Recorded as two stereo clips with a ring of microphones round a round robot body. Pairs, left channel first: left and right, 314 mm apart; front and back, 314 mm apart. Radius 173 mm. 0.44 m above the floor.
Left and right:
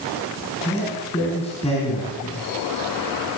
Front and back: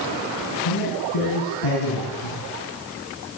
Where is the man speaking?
20° left, 4.5 m.